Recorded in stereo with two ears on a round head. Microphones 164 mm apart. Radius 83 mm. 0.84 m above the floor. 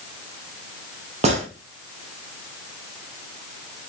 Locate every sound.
1.2 s a gunshot: 40° right (ahead or behind), 1.1 m